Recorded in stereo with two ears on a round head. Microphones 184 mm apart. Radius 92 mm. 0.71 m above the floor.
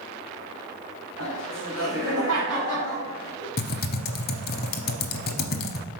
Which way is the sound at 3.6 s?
50° left (ahead or behind).